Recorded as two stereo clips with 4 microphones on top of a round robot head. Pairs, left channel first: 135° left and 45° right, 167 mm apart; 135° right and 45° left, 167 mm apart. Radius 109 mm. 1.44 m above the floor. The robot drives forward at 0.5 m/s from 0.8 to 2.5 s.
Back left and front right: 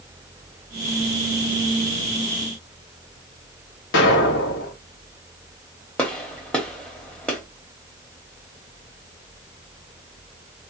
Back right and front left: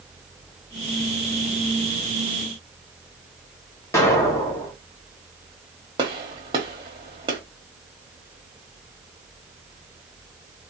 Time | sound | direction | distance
3.9 | an explosion | 150° left | 1.5 m
6.0 | a gunshot | 60° left | 0.9 m